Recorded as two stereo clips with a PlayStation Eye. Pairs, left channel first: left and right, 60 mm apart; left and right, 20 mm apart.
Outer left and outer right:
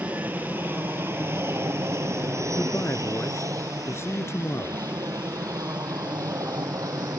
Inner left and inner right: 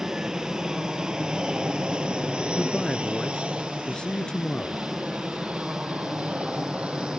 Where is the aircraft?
30° right (ahead or behind); by 7.2 s 70° right (ahead or behind).